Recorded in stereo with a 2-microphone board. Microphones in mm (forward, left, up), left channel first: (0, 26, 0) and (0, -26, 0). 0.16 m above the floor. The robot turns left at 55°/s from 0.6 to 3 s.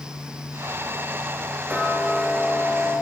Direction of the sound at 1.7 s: 145° right.